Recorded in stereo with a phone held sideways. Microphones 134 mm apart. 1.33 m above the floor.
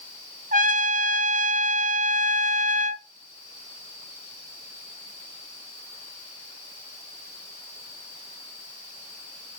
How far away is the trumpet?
About 0.6 m.